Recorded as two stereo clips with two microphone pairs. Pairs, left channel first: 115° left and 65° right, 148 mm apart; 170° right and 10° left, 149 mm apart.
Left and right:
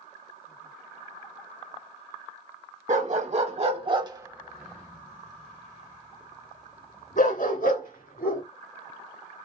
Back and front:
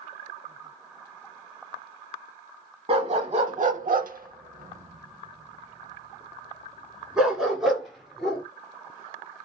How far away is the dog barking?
About 1.1 m.